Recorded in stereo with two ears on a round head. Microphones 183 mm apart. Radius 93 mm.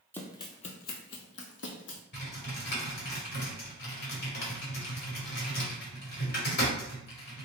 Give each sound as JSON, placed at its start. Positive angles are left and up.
{"t": 0.1, "sound": "running footsteps", "side_deg": 10, "distance_m": 0.6}
{"t": 2.1, "sound": "typing on a keyboard", "side_deg": 50, "distance_m": 1.5}